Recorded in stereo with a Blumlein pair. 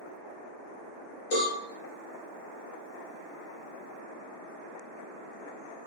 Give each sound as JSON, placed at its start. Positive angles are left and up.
{"t": 1.3, "sound": "a cowbell", "azimuth_deg": 55, "distance_m": 0.9}